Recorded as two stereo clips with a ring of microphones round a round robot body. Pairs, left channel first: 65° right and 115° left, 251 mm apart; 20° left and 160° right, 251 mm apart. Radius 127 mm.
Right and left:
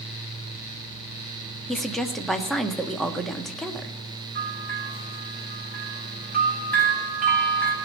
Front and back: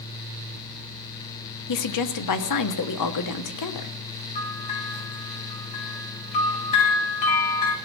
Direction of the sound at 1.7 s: 20° left.